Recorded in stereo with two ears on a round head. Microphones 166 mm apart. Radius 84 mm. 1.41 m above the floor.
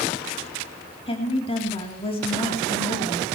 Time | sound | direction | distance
1.1 | a woman speaking | 35° left (ahead or behind) | 3 m